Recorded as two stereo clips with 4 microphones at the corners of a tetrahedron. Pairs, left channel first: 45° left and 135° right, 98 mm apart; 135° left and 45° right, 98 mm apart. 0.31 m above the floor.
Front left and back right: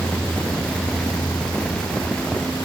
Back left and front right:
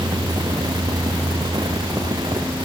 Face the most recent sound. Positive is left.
No sound to turn to.